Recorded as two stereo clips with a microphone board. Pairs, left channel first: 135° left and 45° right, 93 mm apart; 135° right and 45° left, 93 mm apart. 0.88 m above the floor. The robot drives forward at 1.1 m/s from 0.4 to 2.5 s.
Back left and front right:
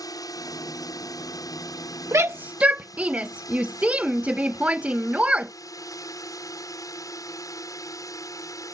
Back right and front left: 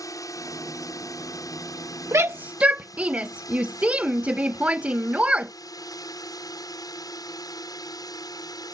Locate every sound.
0.0 s a drone: straight behind; by 8.8 s 175° right
2.1 s a shout: straight ahead